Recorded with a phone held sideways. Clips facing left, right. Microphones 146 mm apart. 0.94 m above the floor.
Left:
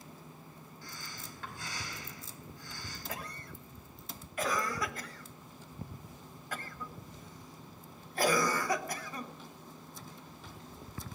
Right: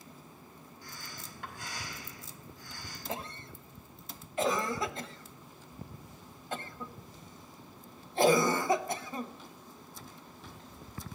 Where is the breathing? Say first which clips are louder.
Even; 15° right (ahead or behind), 4.5 m.